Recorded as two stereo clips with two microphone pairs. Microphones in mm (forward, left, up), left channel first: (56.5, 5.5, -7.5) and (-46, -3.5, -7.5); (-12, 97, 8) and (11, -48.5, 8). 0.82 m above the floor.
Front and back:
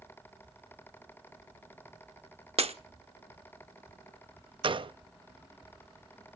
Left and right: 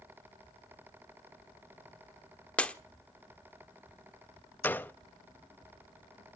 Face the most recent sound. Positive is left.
turn(degrees=170)